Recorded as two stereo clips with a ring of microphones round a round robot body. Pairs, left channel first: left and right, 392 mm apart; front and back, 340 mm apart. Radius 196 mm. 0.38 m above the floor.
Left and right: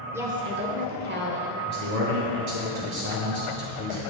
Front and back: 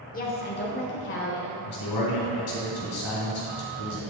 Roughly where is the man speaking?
Ahead right.